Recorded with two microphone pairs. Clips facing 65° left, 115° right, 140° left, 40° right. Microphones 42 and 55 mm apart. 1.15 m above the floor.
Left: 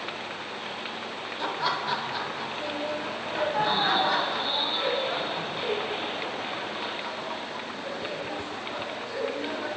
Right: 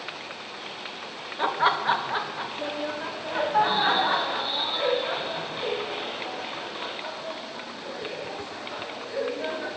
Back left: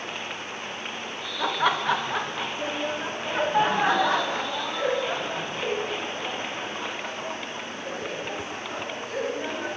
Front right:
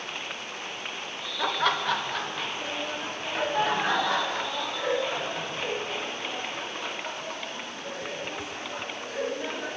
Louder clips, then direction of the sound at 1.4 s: Right 6 dB, back left 2 dB; 125° right.